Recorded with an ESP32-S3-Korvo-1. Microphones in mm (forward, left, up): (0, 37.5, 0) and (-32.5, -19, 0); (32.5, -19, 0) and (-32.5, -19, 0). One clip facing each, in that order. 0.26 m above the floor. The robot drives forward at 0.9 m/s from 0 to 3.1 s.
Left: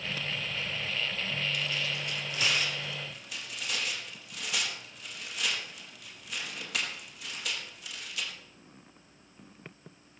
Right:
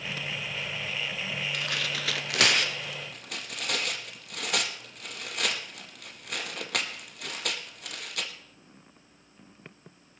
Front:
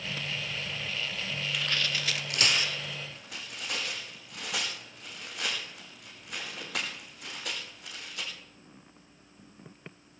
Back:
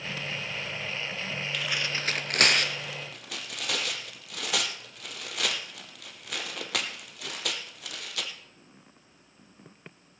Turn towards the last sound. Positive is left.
turn(degrees=-155)